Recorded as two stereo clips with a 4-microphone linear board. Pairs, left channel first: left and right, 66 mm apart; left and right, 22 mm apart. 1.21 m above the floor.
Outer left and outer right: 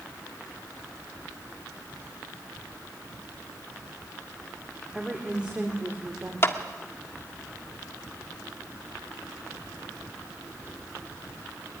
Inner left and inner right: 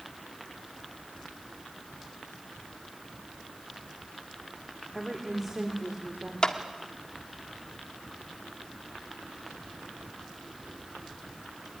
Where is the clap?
40° left (ahead or behind), 1.7 m.